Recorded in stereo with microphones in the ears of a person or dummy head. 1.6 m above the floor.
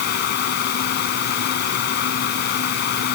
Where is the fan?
65° left (ahead or behind).